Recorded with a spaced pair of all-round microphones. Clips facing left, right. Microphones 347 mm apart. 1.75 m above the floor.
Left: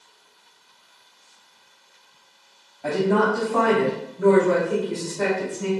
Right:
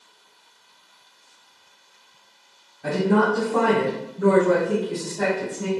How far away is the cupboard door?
I don't hear a cupboard door.